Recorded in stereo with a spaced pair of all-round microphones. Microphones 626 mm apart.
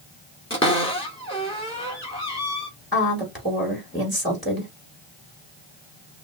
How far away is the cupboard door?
About 2 m.